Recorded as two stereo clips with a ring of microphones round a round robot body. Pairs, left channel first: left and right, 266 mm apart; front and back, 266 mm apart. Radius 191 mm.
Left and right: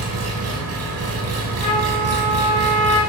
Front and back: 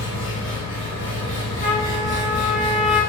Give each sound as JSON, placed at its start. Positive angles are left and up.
{"t": 0.0, "sound": "an engine running", "azimuth_deg": -75, "distance_m": 0.7}
{"t": 1.6, "sound": "a trumpet", "azimuth_deg": 65, "distance_m": 1.6}